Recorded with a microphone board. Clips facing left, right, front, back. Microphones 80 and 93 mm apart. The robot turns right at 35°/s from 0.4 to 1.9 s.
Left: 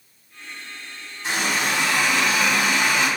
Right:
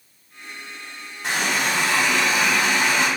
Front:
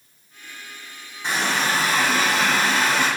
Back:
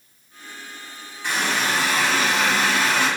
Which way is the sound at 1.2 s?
70° right.